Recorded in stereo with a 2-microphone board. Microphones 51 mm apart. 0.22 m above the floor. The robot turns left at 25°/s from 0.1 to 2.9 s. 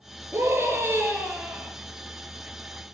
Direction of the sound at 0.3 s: 125° right.